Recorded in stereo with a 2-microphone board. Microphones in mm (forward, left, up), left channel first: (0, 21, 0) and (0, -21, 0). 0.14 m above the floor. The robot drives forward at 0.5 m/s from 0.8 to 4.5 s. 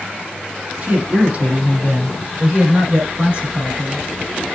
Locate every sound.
0.8 s a man speaking: 35° right (ahead or behind), 5.5 m; by 4.0 s 30° right (ahead or behind), 7 m